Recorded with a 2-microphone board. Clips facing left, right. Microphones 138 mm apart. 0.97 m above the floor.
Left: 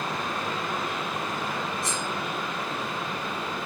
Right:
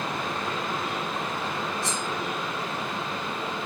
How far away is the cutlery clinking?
About 3.5 m.